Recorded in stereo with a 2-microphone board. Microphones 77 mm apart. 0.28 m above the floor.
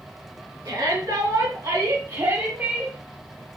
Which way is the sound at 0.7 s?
70° right (ahead or behind).